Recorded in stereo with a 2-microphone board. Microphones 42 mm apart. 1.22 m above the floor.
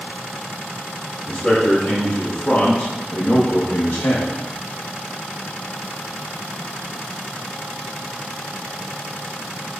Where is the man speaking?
10° left (ahead or behind), 1.9 m; by 4.4 s 70° left (ahead or behind), 0.8 m.